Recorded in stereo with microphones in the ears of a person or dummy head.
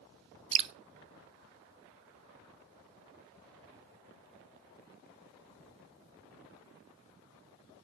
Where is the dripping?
35° right (ahead or behind), 0.8 m.